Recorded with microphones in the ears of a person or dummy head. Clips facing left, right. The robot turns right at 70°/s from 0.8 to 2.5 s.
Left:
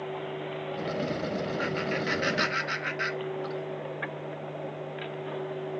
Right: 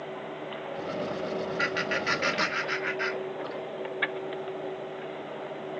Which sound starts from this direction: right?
Laughter, at 1.6 s.